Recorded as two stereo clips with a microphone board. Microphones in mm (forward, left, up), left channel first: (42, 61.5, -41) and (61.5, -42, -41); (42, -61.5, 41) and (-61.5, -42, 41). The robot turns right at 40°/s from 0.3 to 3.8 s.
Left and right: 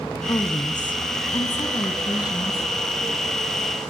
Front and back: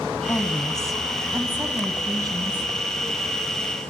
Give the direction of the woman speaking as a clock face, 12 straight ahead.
10 o'clock.